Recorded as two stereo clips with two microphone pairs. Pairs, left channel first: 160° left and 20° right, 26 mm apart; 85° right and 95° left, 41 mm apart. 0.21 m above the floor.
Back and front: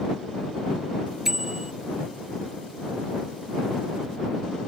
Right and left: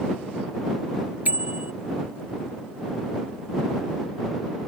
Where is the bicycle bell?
50° left.